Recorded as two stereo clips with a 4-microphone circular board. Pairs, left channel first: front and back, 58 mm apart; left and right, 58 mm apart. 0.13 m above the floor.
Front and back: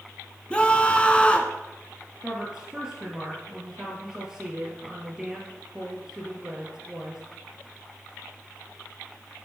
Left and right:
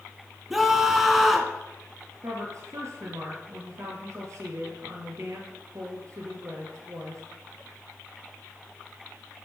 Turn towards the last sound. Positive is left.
turn(degrees=-100)